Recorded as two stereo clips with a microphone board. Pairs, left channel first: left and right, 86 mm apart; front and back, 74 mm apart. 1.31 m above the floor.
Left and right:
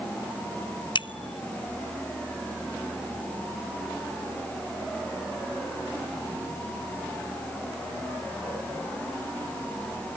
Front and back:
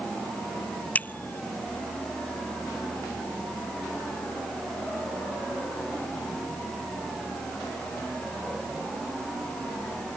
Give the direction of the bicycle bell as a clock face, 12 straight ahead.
10 o'clock.